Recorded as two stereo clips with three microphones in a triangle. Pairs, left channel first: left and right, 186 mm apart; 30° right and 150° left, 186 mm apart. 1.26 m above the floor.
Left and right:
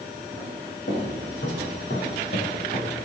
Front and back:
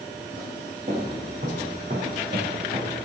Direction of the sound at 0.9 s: 105° left.